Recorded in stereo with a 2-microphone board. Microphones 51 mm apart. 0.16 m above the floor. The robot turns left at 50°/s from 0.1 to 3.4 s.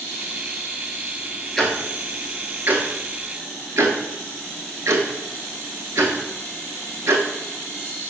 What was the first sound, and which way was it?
Ticking, 5° left (ahead or behind).